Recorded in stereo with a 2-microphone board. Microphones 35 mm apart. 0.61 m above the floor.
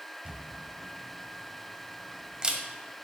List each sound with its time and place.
0.2 s a camera shutter: 25° right (ahead or behind), 1.1 m